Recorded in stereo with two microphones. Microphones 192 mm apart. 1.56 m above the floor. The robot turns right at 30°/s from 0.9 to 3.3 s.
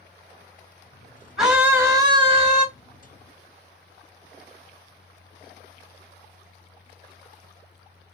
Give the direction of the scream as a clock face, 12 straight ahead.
6 o'clock.